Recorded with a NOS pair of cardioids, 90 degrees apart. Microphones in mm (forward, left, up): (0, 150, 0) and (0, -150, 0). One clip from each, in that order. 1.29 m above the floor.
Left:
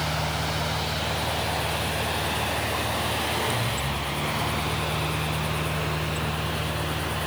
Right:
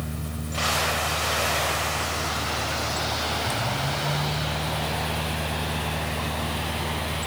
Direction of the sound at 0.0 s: 25° right.